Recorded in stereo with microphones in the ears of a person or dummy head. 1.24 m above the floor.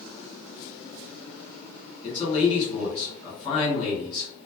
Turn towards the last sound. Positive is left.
turn(degrees=20)  # may be behind; listen again after turning